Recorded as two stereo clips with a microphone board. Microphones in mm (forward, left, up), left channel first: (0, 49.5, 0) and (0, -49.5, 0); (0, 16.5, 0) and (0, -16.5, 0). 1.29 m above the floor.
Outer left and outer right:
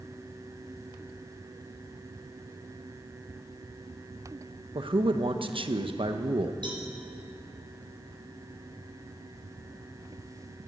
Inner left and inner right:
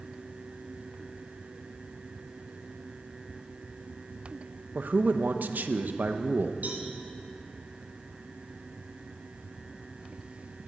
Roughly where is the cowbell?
Right.